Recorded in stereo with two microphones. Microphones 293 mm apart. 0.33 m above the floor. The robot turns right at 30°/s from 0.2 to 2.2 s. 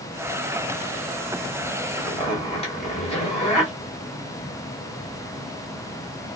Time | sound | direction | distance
2.0 | a zipper | 20° left (ahead or behind) | 1.6 m